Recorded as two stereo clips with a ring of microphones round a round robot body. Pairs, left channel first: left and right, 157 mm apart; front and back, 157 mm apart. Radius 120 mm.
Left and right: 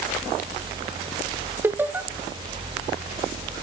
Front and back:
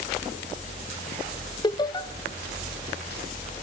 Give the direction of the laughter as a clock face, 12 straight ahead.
1 o'clock.